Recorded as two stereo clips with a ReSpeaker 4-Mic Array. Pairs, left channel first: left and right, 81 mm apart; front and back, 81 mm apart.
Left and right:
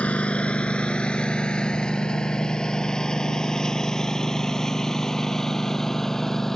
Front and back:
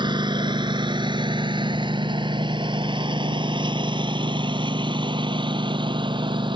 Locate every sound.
0.0 s a lawn mower: 165° left; by 6.6 s 175° left